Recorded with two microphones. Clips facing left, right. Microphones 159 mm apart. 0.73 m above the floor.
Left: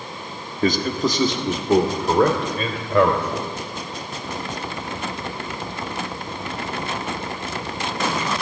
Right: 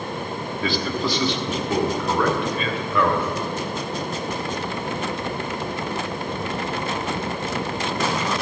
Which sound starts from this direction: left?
A man speaking, at 0.6 s.